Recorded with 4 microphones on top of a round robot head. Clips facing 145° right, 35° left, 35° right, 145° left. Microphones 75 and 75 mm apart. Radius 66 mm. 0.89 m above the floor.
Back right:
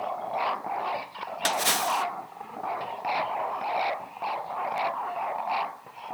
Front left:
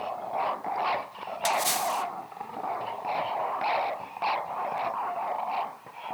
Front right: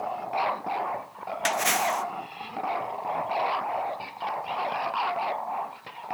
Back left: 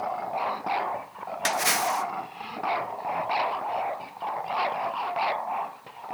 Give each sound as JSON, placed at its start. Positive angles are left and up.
{"t": 1.4, "sound": "a splash", "azimuth_deg": -130, "distance_m": 1.4}